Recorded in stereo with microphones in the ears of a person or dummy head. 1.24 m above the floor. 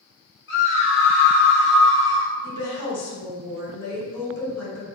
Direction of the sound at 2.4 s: 75° left (ahead or behind).